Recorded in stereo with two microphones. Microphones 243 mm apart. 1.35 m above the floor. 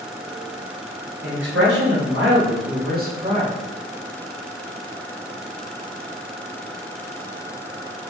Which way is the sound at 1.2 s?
60° right (ahead or behind).